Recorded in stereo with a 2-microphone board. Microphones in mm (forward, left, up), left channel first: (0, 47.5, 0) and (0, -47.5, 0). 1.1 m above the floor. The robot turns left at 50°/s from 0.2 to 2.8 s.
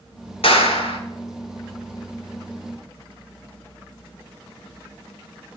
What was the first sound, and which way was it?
A clap, 80° left.